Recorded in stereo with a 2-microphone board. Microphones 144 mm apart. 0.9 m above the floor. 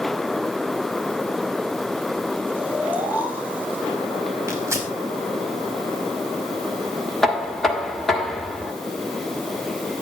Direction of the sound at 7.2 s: Centre (ahead or behind).